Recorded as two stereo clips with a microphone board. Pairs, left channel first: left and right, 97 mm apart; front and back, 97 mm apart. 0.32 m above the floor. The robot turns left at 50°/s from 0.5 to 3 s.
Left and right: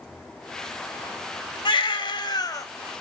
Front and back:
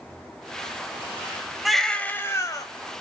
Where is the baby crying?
90° left, 0.7 m; by 2.7 s 40° left, 0.7 m.